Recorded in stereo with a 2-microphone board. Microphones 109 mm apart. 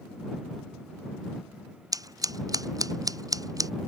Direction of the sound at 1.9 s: 35° right (ahead or behind).